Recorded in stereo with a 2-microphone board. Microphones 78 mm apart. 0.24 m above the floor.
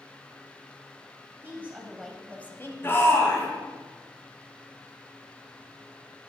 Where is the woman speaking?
30° right (ahead or behind), 1.2 m; by 2.7 s 35° left (ahead or behind), 1.2 m.